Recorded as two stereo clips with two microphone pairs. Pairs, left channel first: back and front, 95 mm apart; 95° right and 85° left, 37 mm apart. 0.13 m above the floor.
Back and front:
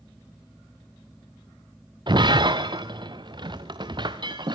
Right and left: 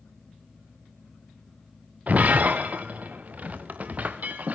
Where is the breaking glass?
40° left, 1.7 m.